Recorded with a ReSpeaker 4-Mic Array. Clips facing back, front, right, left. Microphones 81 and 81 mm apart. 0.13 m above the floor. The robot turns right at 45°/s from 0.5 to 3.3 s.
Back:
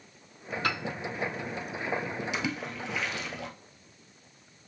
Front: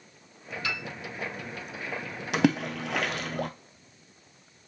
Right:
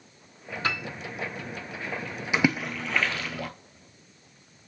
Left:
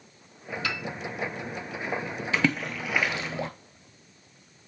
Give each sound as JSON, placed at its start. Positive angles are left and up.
{"t": 0.6, "sound": "a piano", "azimuth_deg": -140, "distance_m": 1.0}
{"t": 2.3, "sound": "a splash", "azimuth_deg": -15, "distance_m": 0.8}